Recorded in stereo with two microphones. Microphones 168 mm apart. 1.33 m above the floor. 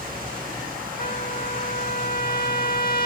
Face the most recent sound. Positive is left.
turn(degrees=55)  # may be behind; listen again after turning